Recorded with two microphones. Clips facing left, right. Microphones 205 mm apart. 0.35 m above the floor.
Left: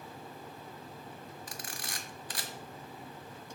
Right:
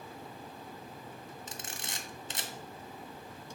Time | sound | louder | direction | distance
1.5 | a camera shutter | even | 25° right (ahead or behind) | 0.8 m